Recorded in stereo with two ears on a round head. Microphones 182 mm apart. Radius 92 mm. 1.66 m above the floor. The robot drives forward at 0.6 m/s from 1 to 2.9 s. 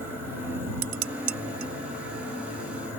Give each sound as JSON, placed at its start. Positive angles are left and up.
{"t": 0.8, "sound": "dishes clattering", "side_deg": -85}